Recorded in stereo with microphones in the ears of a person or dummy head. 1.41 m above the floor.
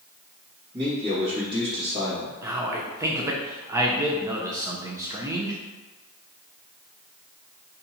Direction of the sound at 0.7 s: 25° right (ahead or behind).